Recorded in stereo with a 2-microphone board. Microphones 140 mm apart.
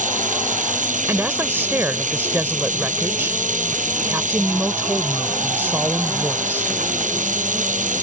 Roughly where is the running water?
Right.